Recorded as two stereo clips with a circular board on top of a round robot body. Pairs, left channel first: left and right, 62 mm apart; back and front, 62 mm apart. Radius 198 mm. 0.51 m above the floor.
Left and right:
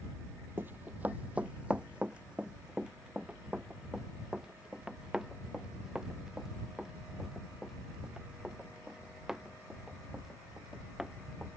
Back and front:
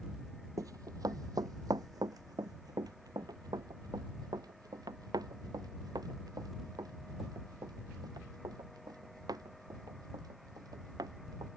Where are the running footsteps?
30° right; by 11.5 s 10° right.